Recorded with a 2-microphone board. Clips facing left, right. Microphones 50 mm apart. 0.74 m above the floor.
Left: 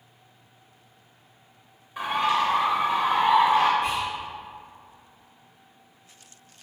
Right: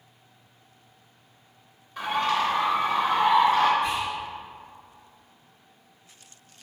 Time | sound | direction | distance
2.0 | a bird | 15° left (ahead or behind) | 0.7 m
3.8 | whispering | 60° left (ahead or behind) | 1.7 m